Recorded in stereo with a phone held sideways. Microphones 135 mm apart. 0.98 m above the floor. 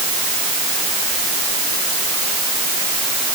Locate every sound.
Only background noise.